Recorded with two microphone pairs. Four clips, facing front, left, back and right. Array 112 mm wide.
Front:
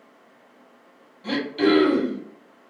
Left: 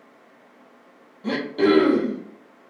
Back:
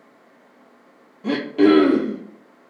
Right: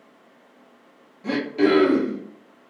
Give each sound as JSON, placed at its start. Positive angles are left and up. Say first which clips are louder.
{"t": 1.2, "sound": "throat clearing", "louder": "even, back 5 dB", "azimuth_deg": 160, "distance_m": 0.7}